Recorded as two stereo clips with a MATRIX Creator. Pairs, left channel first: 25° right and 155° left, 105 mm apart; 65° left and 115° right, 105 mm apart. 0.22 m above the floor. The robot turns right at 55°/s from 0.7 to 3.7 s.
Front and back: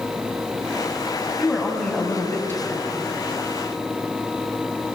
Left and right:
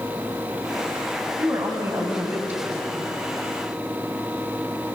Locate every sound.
1.4 s a woman speaking: 120° right, 1.3 m; by 3.0 s 30° right, 1.3 m